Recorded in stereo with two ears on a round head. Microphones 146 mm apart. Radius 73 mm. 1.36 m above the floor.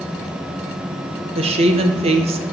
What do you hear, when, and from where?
1.4 s a woman speaking: 35° right (ahead or behind), 0.8 m